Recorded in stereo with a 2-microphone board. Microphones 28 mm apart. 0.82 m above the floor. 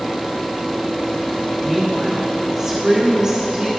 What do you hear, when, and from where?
1.6 s a woman speaking: 10° right (ahead or behind), 1.2 m; by 3.7 s 35° right (ahead or behind), 2.0 m